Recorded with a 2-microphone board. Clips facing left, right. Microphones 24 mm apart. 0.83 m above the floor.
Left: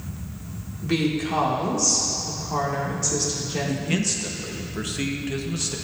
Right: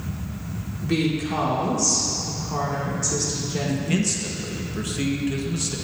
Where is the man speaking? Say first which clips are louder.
Right 2 dB; 10° left (ahead or behind), 0.8 m.